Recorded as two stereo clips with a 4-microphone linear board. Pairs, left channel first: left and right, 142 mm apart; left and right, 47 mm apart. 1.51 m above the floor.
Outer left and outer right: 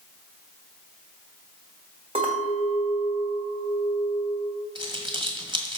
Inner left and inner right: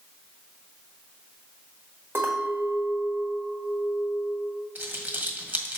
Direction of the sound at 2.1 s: 45° right (ahead or behind).